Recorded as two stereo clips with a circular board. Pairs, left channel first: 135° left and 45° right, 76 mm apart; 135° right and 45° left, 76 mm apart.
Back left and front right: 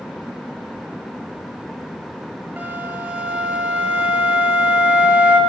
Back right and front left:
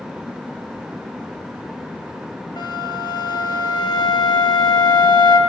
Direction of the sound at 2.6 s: 110° right.